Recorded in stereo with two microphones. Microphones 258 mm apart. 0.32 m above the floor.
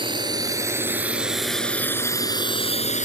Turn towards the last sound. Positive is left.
turn(degrees=30)  # may be behind; listen again after turning